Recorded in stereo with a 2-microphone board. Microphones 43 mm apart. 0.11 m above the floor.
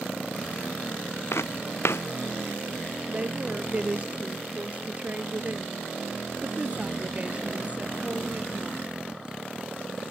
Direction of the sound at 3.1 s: 30° right (ahead or behind).